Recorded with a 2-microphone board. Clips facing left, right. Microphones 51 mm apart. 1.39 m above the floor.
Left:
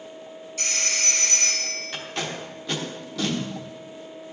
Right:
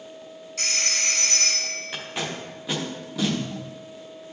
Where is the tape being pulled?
10° right (ahead or behind), 1.0 m.